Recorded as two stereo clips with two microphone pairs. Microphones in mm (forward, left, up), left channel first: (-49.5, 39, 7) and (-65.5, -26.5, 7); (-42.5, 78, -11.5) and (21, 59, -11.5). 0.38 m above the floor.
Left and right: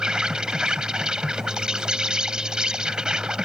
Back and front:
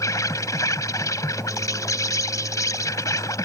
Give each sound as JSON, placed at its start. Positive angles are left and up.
{"t": 0.0, "sound": "an insect", "azimuth_deg": 180}